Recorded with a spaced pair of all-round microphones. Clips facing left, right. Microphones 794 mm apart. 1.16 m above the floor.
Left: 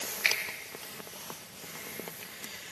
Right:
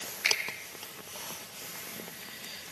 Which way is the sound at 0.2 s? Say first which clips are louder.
Right 4 dB; 55° left (ahead or behind).